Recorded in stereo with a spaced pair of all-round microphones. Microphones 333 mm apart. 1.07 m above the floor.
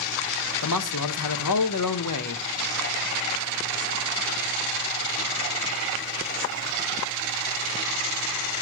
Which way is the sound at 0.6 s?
65° left (ahead or behind).